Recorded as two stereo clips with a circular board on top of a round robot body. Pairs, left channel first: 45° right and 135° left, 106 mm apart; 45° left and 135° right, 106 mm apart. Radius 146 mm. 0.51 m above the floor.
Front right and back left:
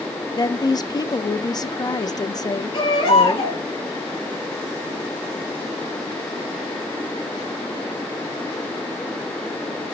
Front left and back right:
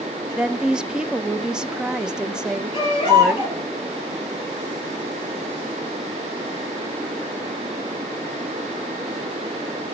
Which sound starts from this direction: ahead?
A baby crying, at 2.7 s.